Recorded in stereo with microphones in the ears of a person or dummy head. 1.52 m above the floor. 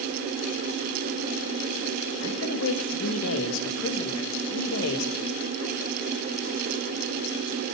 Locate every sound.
2.2 s a man speaking: 70° left (ahead or behind), 2 m